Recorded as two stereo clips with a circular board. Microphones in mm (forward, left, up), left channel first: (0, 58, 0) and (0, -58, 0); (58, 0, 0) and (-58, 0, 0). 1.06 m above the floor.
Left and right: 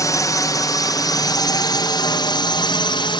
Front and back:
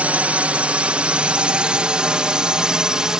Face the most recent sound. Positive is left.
turn(degrees=100)